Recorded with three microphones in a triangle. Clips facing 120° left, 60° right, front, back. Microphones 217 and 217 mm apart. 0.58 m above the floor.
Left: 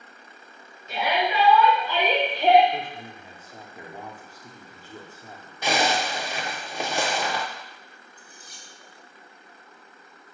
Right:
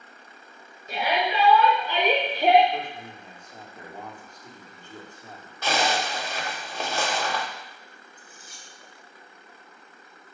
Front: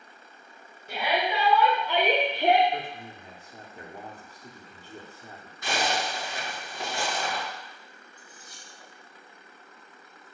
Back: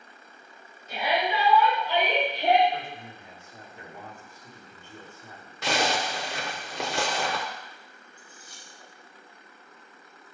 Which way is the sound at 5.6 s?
165° right.